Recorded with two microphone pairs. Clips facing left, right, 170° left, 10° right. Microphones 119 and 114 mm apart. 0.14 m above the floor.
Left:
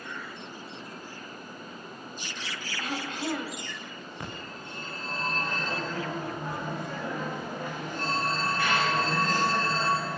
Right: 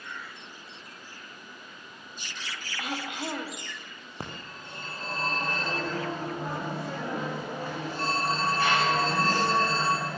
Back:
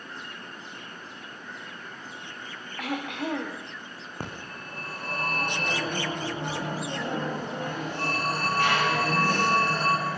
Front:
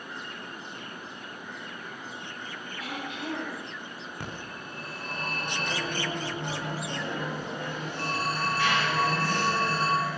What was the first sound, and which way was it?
Throat clearing, 160° right.